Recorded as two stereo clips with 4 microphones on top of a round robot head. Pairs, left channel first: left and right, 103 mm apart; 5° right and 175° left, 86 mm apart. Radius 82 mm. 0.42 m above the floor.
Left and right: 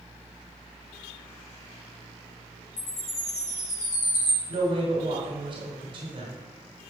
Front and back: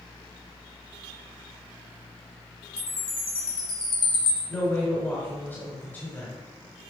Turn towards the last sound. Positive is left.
turn(degrees=-75)